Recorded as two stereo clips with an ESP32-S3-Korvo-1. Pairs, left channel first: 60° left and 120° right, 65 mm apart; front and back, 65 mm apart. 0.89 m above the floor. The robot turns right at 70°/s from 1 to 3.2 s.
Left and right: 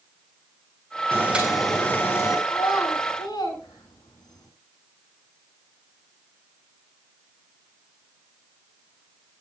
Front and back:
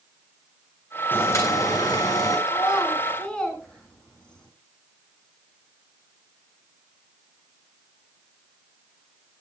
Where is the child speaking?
25° left, 7 m; by 4.5 s 75° left, 7 m.